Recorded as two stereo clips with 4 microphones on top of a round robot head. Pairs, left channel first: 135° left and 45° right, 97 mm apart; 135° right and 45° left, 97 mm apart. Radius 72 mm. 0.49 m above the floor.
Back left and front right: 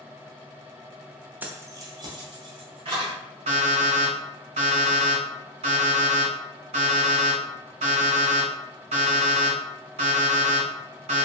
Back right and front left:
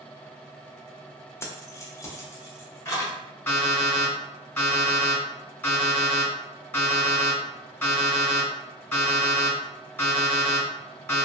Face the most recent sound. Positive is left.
turn(degrees=-65)